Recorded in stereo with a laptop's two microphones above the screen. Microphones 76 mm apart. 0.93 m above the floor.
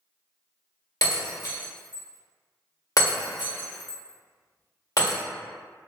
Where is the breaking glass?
50° left (ahead or behind), 1.4 m.